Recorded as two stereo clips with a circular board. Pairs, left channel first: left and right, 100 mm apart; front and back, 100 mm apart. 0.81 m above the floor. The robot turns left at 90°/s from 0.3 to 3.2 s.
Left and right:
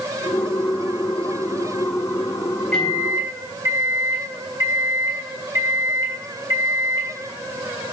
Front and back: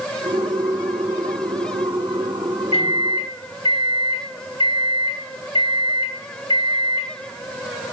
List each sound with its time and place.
2.7 s a microwave: 10° left, 3.5 m; by 7.1 s 35° right, 3.5 m